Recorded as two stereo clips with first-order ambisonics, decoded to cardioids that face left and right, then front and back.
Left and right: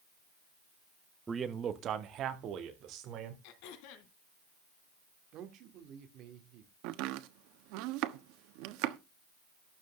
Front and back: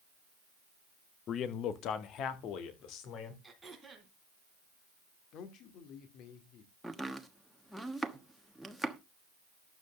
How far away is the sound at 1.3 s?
About 0.9 m.